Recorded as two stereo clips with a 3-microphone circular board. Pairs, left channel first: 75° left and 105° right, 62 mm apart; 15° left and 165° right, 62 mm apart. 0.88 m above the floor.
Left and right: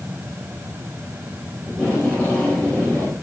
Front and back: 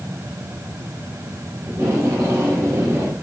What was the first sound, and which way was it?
Tape being pulled, 150° left.